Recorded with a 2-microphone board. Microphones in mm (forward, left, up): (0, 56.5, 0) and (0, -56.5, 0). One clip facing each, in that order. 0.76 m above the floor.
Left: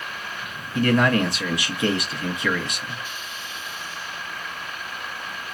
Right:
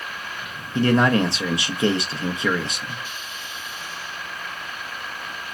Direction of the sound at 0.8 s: 30° right (ahead or behind).